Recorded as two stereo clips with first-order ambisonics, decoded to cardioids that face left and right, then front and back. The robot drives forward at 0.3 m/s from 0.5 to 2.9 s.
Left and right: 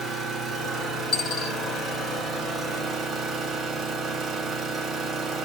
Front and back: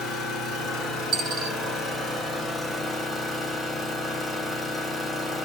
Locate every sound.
0.0 s an engine running: 25° right, 1.3 m; by 5.5 s 75° right, 1.0 m
1.1 s a dropped coin: 130° left, 1.1 m; by 1.6 s 140° left, 1.1 m